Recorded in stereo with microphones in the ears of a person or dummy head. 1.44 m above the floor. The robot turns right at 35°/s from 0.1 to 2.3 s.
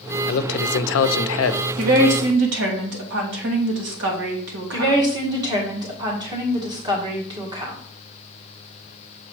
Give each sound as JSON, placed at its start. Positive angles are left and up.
{"t": 0.3, "sound": "a man speaking", "azimuth_deg": 55, "distance_m": 0.6}
{"t": 1.8, "sound": "a woman speaking", "side_deg": -55, "distance_m": 2.0}
{"t": 4.7, "sound": "a woman speaking", "side_deg": -20, "distance_m": 1.8}